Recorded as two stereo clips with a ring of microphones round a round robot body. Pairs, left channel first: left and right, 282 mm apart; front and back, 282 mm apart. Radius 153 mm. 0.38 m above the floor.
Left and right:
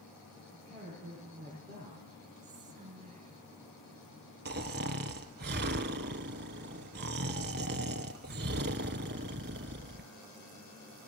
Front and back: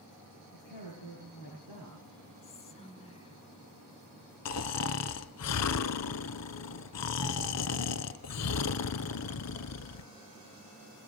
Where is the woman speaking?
5° left, 7.5 m; by 2.3 s 10° left, 7 m.